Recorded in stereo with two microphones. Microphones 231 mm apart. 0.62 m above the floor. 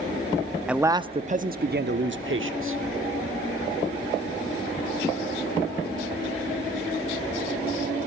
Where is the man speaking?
5° right (ahead or behind), 0.8 m; by 2.8 s 65° right (ahead or behind), 1.7 m.